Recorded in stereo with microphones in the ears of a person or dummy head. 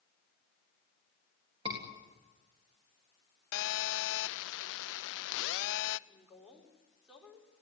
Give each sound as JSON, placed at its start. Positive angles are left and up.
{"t": 1.6, "sound": "a scream", "side_deg": -35, "distance_m": 3.5}
{"t": 3.5, "sound": "a phone buzzing", "side_deg": 75, "distance_m": 0.7}
{"t": 6.1, "sound": "a woman speaking", "side_deg": 0, "distance_m": 5.0}